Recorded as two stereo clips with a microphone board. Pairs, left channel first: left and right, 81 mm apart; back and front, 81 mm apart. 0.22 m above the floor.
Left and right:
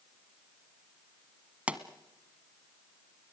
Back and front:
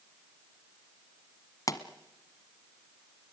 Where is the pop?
160° right, 1.3 m.